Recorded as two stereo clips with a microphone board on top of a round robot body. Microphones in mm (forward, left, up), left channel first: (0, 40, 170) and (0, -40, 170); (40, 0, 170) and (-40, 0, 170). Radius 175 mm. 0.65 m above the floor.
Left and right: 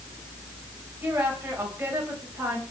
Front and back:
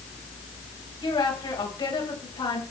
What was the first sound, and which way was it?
A woman speaking, 20° right.